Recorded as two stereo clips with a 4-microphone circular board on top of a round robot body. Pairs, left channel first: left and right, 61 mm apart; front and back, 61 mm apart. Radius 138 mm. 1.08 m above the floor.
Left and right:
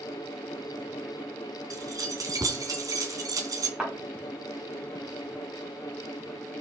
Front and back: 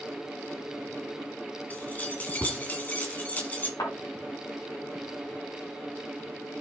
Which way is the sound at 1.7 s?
60° right.